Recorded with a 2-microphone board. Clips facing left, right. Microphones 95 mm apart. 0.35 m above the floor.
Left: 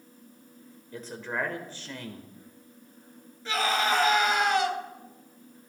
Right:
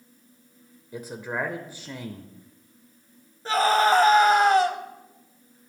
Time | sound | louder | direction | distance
0.9 | a man speaking | right 2 dB | 10° right (ahead or behind) | 1.2 m
3.5 | a scream | right 7 dB | 40° right (ahead or behind) | 1.9 m